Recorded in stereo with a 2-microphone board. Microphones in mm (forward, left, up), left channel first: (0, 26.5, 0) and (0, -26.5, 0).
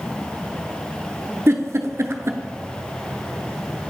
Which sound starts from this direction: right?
A giggle, at 1.5 s.